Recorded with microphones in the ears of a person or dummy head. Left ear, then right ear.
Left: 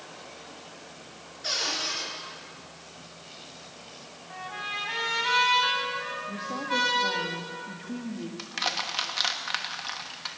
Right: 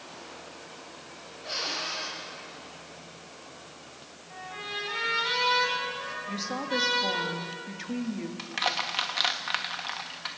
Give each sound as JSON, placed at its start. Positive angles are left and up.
{"t": 1.4, "sound": "a cupboard door", "side_deg": 85, "distance_m": 8.5}
{"t": 4.3, "sound": "a trumpet", "side_deg": 35, "distance_m": 4.5}
{"t": 6.3, "sound": "a woman speaking", "side_deg": -70, "distance_m": 2.5}
{"t": 8.4, "sound": "crushing", "side_deg": -5, "distance_m": 1.2}